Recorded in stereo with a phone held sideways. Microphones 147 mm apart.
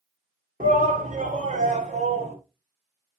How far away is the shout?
About 2 m.